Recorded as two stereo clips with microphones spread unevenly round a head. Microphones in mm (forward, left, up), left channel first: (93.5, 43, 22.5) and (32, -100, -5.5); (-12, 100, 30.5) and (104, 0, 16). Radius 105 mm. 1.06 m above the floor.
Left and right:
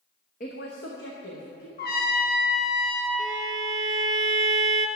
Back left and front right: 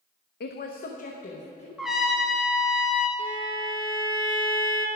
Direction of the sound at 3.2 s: 55° right.